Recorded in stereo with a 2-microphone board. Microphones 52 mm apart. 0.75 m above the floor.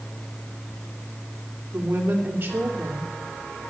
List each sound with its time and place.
1.7 s a woman speaking: 45° right (ahead or behind), 2.5 m